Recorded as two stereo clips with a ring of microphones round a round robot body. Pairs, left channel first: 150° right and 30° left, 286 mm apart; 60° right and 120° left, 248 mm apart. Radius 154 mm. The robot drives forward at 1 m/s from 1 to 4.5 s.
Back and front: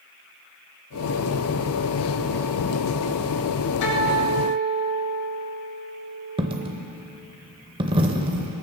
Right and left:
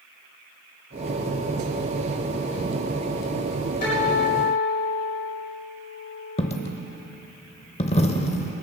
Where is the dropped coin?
25° right, 0.7 m.